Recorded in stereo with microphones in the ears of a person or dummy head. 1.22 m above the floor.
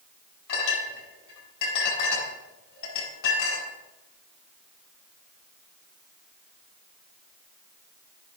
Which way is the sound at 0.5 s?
60° left (ahead or behind).